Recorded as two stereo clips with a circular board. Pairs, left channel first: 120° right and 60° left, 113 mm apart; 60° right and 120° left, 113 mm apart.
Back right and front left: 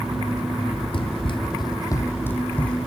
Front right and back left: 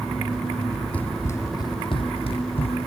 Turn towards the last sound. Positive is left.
turn(degrees=-40)